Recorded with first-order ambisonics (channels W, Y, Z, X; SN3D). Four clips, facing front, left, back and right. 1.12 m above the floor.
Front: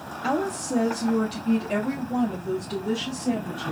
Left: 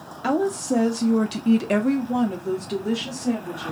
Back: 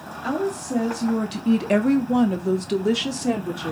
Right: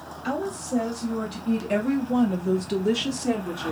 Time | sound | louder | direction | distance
0.2 | a woman speaking | left 7 dB, back 1 dB | 80° left | 0.9 m